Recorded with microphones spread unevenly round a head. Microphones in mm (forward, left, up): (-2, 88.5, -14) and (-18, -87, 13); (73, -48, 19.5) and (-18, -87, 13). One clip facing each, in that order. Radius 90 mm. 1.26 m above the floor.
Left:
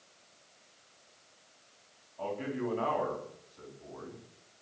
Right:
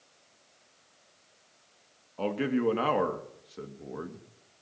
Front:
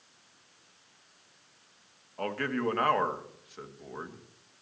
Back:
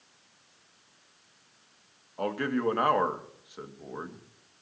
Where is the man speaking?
80° right, 2.5 m.